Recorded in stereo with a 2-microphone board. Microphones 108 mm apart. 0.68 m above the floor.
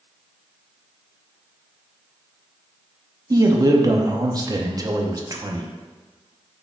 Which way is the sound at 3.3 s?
35° right (ahead or behind).